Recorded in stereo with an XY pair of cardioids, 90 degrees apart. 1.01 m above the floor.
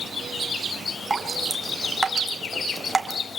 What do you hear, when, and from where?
1.1 s dripping: 25° right, 2.5 m